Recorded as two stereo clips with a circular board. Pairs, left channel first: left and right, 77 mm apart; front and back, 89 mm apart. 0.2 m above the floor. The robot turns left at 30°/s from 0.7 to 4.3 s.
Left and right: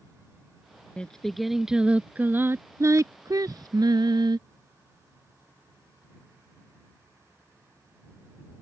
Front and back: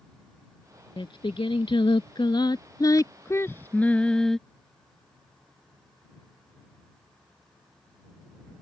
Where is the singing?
15° left; by 4.4 s 85° right.